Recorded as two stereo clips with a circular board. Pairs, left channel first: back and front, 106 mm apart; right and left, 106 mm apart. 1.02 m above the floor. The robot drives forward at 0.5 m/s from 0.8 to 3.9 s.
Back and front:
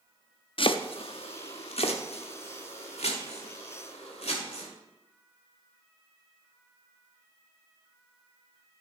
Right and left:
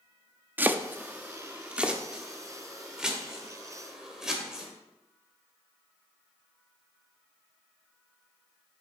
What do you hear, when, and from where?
0.6 s chopping: 160° left, 0.6 m; by 4.7 s 175° left, 2 m